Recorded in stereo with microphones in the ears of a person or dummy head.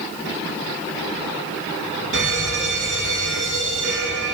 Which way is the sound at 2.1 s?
75° right (ahead or behind).